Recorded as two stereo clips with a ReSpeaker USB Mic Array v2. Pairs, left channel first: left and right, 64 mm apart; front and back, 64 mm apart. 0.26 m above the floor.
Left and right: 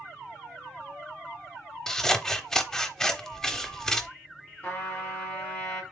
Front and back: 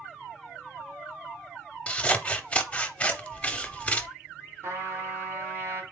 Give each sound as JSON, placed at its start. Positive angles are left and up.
{"t": 1.9, "sound": "scissors", "azimuth_deg": 20, "distance_m": 0.6}
{"t": 4.6, "sound": "a trumpet", "azimuth_deg": 150, "distance_m": 2.0}